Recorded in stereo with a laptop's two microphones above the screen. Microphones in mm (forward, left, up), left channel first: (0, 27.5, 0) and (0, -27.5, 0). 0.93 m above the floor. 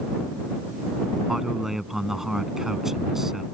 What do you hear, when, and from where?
1.3 s a man speaking: 5° right (ahead or behind)